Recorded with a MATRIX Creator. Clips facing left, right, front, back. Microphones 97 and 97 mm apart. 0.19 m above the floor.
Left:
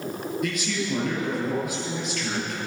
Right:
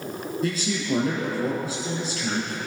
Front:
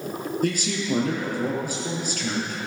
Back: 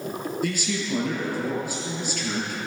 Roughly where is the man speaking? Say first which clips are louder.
Right 3 dB, front 4 dB; ahead right.